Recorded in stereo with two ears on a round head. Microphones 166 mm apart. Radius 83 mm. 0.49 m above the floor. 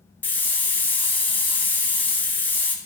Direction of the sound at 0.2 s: 10° left (ahead or behind).